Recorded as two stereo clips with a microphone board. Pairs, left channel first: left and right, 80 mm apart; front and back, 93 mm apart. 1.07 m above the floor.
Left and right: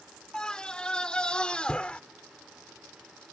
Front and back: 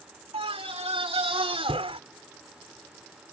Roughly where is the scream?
Behind.